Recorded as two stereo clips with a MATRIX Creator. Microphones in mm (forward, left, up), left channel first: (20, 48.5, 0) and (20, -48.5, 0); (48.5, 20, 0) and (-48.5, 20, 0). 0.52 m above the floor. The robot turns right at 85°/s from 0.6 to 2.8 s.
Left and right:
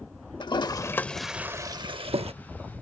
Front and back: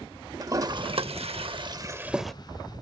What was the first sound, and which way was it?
A toilet flushing, 125° left.